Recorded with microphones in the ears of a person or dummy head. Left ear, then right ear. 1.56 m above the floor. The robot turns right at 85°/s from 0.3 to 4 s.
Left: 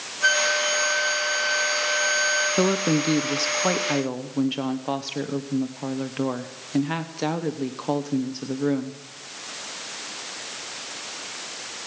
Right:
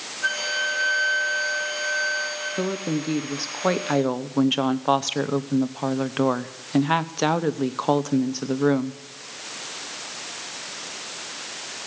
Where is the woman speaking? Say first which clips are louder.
Left 5 dB; 100° left, 0.7 m; by 9.0 s 140° right, 0.7 m.